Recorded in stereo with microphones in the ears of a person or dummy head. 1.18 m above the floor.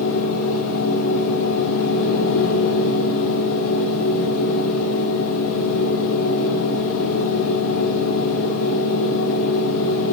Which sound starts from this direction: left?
A machine running, at 0.0 s.